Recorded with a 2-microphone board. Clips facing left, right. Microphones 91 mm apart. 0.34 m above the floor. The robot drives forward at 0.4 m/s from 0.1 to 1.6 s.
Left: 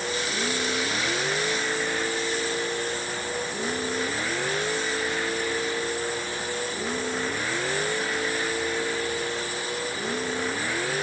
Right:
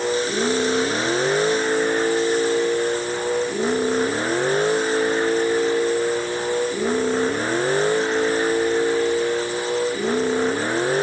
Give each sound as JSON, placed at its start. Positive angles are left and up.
{"t": 0.0, "sound": "a vehicle", "side_deg": -40}